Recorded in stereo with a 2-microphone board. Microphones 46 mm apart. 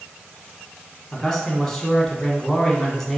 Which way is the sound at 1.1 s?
10° left (ahead or behind).